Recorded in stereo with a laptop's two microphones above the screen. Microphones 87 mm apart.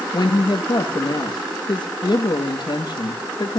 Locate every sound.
0.1 s a woman speaking: 60° left (ahead or behind), 1.5 m